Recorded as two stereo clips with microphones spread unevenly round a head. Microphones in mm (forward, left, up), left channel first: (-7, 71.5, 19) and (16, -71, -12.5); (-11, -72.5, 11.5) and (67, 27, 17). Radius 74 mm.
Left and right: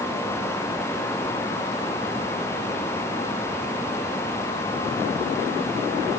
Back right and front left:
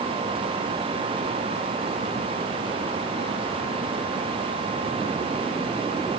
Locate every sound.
Only background noise.